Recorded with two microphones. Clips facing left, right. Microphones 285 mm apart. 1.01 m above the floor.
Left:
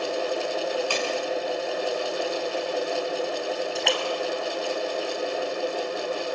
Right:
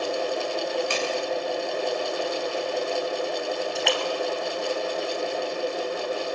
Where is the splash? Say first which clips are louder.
Right 1 dB; centre (ahead or behind), 2.5 m.